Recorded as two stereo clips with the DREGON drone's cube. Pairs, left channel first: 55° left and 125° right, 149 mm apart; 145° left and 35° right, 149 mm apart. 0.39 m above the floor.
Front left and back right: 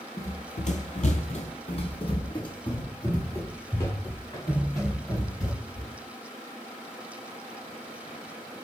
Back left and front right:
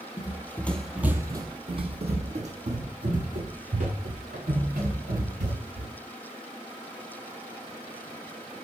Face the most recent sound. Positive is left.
turn(degrees=-15)